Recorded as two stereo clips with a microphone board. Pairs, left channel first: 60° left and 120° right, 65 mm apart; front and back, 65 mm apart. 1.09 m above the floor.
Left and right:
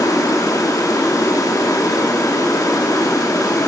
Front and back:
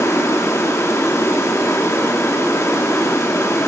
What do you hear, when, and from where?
0.0 s running water: 40° left, 2.5 m